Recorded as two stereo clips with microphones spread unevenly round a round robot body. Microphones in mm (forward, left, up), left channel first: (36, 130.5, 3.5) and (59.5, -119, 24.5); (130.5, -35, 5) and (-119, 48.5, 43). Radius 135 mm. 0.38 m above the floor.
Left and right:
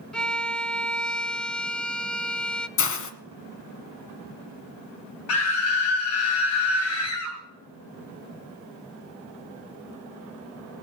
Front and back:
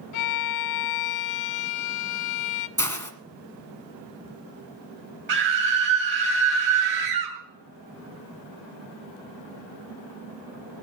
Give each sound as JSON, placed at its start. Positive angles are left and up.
{"t": 0.1, "sound": "a violin", "azimuth_deg": 5, "distance_m": 0.5}
{"t": 2.8, "sound": "a hiss", "azimuth_deg": 60, "distance_m": 1.7}
{"t": 5.3, "sound": "a scream", "azimuth_deg": 110, "distance_m": 2.0}